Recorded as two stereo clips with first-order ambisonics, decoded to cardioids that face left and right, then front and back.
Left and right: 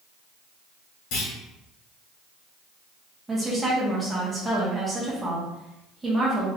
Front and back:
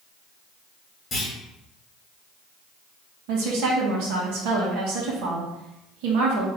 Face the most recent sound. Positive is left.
turn(degrees=-175)